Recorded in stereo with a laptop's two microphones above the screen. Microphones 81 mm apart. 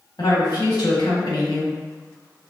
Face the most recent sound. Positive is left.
turn(degrees=65)  # may be behind; listen again after turning